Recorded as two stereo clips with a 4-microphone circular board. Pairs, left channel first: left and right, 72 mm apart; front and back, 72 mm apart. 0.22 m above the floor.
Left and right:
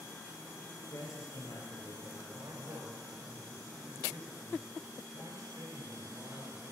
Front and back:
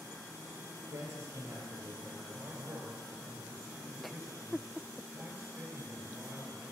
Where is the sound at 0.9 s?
135° left, 4 m; by 2.2 s 115° left, 4 m.